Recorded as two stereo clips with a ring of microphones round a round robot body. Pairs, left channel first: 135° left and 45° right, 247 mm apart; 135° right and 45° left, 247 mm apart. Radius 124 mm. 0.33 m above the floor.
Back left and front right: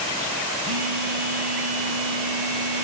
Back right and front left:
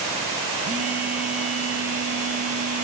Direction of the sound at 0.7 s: 20° right.